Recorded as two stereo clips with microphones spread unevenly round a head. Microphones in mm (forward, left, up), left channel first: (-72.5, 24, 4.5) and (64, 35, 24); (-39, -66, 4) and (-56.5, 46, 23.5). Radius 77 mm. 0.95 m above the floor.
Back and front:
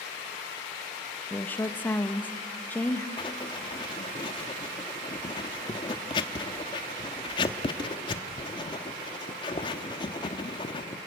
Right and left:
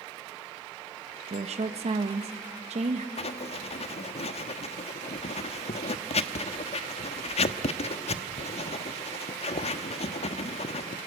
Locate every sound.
1.3 s a woman speaking: 115° left, 1.4 m
3.2 s writing: 115° right, 1.0 m